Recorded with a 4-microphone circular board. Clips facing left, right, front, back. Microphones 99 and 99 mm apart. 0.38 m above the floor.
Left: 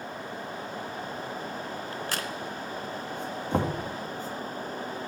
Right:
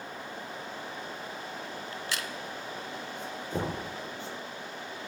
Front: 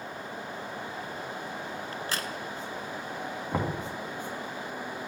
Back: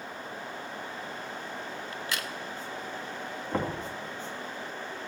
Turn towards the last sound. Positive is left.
turn(degrees=75)